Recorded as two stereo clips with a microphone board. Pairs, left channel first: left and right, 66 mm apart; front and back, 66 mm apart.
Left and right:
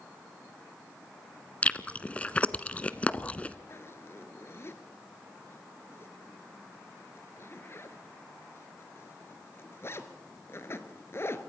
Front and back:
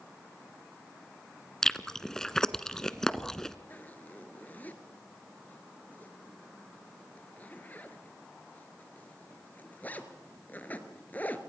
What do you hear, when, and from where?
1.6 s chewing: 70° left, 0.7 m
3.7 s a zipper: 55° left, 1.6 m